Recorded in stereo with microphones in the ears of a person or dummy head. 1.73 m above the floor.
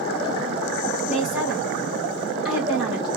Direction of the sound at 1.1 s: 5° right (ahead or behind).